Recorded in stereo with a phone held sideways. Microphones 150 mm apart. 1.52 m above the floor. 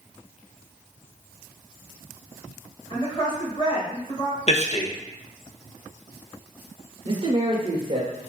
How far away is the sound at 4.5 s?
About 0.5 m.